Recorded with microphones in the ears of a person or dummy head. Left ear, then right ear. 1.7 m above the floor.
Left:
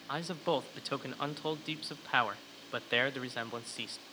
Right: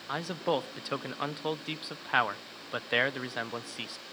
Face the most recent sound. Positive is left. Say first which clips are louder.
# right 3 dB
turn(degrees=-5)  # may be behind; listen again after turning